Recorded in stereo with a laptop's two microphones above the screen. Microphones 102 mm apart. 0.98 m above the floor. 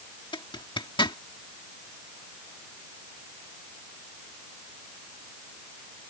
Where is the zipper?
50° left (ahead or behind).